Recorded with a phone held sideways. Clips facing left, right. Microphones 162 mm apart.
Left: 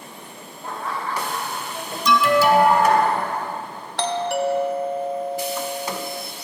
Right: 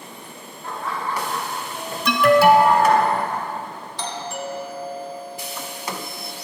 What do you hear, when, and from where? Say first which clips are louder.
0.6 s laughter: even; 20° left (ahead or behind), 1.2 m; by 3.0 s 65° right (ahead or behind), 3.5 m
2.0 s an alarm: right 3 dB; 60° right (ahead or behind), 0.5 m
4.0 s a doorbell: left 9 dB; 70° left (ahead or behind), 0.5 m